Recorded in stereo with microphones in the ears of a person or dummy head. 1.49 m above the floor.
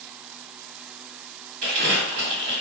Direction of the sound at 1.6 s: 50° right (ahead or behind).